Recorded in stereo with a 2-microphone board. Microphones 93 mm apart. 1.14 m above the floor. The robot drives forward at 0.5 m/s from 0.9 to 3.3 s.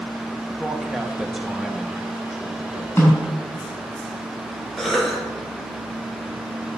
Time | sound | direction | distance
0.6 | a man speaking | 5° right (ahead or behind) | 1.1 m
3.0 | a snare drum | 25° left (ahead or behind) | 4.5 m
4.8 | a cough | centre (ahead or behind) | 1.8 m